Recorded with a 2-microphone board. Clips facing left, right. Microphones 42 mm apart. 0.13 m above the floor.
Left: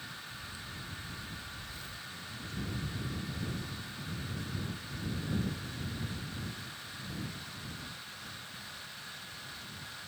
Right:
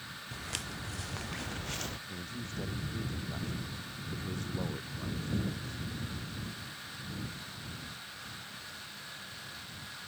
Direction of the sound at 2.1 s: 55° right (ahead or behind).